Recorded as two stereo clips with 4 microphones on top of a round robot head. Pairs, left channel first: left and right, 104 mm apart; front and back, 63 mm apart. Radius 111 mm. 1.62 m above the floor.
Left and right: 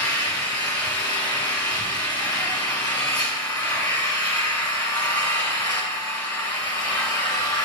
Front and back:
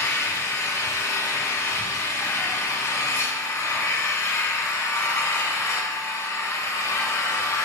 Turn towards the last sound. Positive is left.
turn(degrees=45)